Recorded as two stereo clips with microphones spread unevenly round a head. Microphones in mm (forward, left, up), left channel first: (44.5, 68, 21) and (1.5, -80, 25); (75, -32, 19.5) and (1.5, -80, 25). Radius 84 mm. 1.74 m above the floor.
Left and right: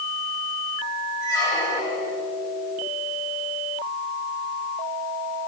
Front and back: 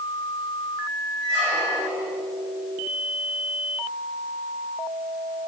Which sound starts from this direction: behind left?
A squeak, at 1.2 s.